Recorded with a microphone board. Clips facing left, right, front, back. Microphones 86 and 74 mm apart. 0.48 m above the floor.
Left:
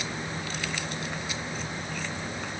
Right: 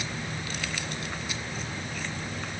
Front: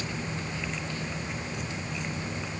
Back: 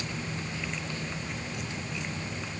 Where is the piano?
No piano in this recording.